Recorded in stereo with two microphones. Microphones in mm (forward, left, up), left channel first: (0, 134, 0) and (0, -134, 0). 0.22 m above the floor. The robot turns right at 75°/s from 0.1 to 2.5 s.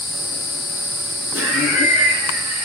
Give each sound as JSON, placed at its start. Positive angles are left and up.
{"t": 1.3, "sound": "laughter", "azimuth_deg": 100, "distance_m": 2.0}